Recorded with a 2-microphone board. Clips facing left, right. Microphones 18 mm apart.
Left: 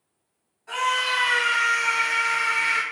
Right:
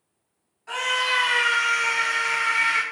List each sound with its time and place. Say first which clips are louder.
0.7 s a scream: even; 35° right (ahead or behind), 2.0 m